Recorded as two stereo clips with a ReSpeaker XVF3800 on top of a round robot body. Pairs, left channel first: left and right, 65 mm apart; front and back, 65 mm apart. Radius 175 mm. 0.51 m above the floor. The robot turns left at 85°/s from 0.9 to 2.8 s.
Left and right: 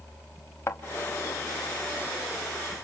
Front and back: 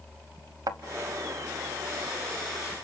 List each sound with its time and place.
0.7 s a thud: 145° left, 0.9 m